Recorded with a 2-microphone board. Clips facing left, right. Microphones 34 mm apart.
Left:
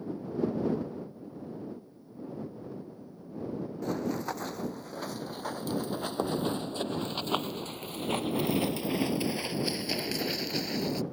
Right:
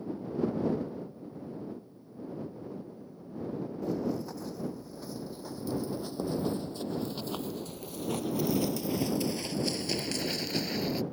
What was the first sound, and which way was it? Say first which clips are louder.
Running footsteps: left 1 dB; 70° left (ahead or behind).